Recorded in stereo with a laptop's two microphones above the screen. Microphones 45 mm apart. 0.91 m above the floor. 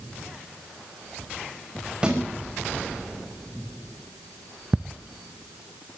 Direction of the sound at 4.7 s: 15° right (ahead or behind).